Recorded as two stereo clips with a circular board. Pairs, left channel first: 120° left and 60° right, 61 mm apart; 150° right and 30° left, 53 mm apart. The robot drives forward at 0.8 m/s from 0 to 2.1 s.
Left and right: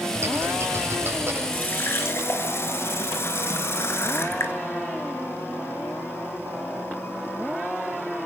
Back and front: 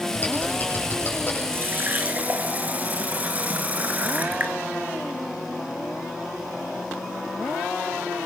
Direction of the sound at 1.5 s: 70° left.